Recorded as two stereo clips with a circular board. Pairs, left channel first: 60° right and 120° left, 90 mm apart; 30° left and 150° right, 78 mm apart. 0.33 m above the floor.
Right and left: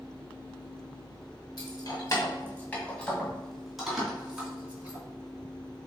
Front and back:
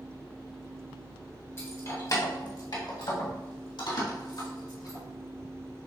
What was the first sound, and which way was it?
Keys jangling, 25° right.